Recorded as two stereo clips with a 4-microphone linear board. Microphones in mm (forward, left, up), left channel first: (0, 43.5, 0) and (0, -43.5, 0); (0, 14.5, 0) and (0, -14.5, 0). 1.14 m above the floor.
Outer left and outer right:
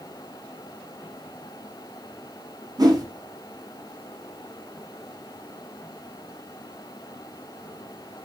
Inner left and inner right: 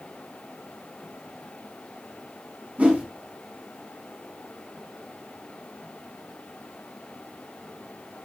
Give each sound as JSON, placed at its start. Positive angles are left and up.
{"t": 2.8, "sound": "a whoosh", "side_deg": -45, "distance_m": 0.5}